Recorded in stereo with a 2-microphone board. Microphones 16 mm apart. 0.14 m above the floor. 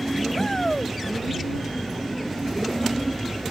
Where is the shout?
20° left (ahead or behind).